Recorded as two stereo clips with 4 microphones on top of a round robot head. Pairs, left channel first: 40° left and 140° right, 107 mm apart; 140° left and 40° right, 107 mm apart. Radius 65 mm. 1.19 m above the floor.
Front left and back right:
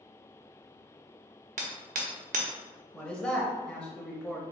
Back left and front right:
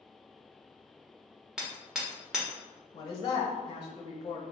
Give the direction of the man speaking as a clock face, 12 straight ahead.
8 o'clock.